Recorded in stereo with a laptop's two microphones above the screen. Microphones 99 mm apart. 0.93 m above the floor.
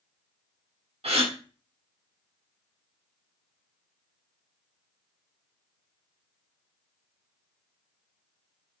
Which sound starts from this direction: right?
A gasp, at 1.0 s.